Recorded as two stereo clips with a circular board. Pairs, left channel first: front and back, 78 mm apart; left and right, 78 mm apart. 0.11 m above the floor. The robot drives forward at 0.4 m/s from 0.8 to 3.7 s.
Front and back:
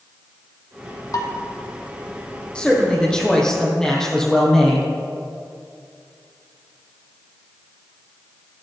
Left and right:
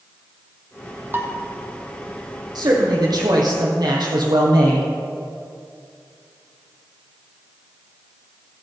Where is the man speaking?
75° right, 4 m; by 4.9 s 80° right, 4 m.